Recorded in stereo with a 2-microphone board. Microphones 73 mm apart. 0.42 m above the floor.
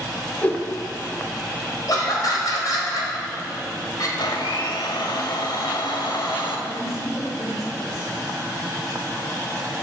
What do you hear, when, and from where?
0.4 s a whoosh: 20° left (ahead or behind), 0.6 m
1.9 s laughter: 60° left (ahead or behind), 1.7 m
4.2 s a blender: 75° left (ahead or behind), 0.7 m
6.7 s a woman speaking: 40° left (ahead or behind), 1.9 m